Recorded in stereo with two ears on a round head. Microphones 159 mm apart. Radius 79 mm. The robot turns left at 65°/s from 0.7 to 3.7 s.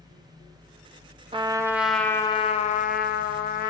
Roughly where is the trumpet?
Behind right.